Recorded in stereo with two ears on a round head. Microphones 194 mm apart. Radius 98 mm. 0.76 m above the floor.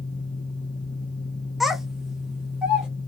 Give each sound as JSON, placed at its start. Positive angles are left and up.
{"t": 1.6, "sound": "a child speaking", "side_deg": 0, "distance_m": 0.5}